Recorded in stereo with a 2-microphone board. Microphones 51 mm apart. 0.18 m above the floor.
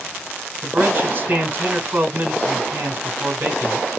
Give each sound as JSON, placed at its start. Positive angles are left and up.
{"t": 0.6, "sound": "a man speaking", "side_deg": -40, "distance_m": 1.7}